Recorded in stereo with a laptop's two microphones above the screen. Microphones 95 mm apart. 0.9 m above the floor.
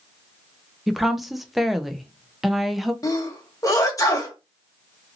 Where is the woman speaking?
Centre (ahead or behind), 0.6 m.